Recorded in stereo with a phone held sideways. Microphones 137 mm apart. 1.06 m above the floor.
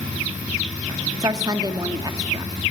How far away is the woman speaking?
About 1.6 m.